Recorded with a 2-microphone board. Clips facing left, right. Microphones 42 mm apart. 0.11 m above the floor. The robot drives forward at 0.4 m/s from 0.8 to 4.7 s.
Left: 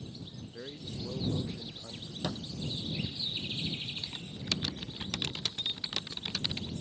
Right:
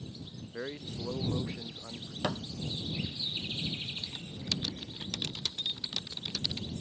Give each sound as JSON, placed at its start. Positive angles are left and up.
{"t": 0.5, "sound": "a man speaking", "side_deg": -40}
{"t": 2.2, "sound": "a thud", "side_deg": -40}
{"t": 4.0, "sound": "typing on a keyboard", "side_deg": 25}